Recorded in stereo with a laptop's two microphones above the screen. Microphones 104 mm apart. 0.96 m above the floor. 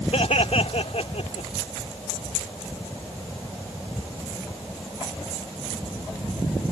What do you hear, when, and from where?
0.1 s laughter: 80° left